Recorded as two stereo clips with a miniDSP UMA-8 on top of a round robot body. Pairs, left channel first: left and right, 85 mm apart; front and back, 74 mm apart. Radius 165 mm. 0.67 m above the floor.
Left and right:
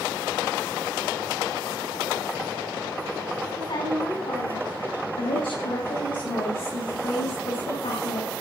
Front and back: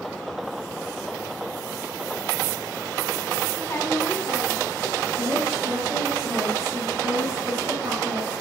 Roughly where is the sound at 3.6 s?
Ahead left.